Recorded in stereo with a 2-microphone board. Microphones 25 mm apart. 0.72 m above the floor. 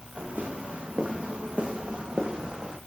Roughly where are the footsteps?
Right.